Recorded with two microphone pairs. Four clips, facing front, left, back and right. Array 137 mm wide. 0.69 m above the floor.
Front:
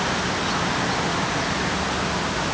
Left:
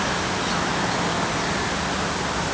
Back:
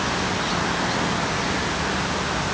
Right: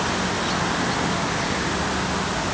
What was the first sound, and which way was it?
Only background noise.